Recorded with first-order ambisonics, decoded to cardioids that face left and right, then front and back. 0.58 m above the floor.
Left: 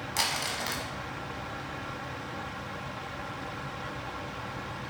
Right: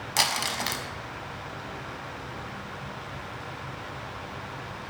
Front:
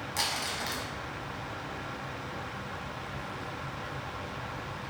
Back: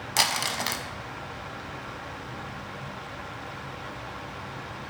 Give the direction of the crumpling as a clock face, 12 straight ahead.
5 o'clock.